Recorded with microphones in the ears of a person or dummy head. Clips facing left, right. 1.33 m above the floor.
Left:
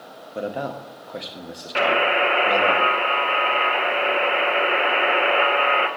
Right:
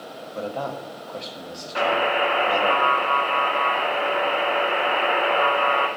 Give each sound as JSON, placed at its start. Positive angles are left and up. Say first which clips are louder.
{"t": 0.3, "sound": "a man speaking", "louder": "left 2 dB", "side_deg": 25, "distance_m": 0.8}
{"t": 1.8, "sound": "a buzzer", "louder": "left 1 dB", "side_deg": 40, "distance_m": 0.6}